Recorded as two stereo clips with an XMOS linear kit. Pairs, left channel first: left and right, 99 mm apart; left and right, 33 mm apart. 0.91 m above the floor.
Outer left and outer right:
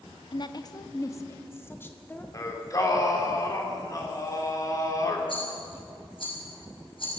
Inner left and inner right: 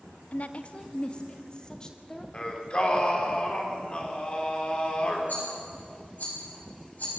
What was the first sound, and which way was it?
A woman speaking, 50° left (ahead or behind).